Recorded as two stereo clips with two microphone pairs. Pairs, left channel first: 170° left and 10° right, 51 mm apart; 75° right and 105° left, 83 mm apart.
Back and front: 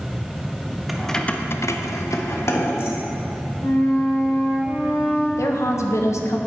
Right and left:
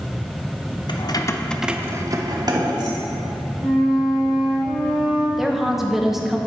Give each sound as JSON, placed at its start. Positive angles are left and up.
{"t": 0.9, "sound": "keys jangling", "azimuth_deg": -95, "distance_m": 0.8}
{"t": 3.6, "sound": "a flute", "azimuth_deg": -170, "distance_m": 3.5}
{"t": 5.4, "sound": "a woman speaking", "azimuth_deg": -165, "distance_m": 1.0}